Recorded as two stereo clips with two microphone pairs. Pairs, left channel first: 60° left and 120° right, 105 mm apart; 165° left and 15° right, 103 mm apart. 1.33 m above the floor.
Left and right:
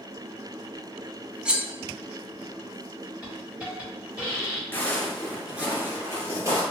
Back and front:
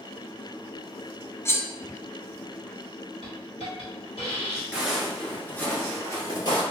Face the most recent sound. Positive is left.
turn(degrees=-165)